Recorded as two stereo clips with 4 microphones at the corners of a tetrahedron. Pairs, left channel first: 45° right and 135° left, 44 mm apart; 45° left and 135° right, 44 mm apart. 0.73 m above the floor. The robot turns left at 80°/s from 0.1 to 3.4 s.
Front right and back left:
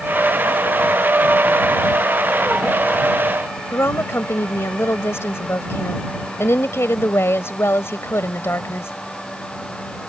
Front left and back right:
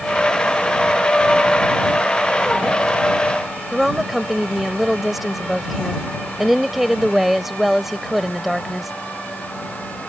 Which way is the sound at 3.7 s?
50° right.